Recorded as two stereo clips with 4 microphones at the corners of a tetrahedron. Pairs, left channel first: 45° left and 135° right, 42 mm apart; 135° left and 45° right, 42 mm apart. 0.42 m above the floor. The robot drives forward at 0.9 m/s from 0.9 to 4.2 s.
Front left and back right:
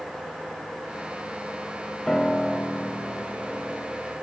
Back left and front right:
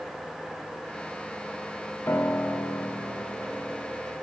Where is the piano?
115° left, 0.5 m; by 4.1 s 165° left, 2 m.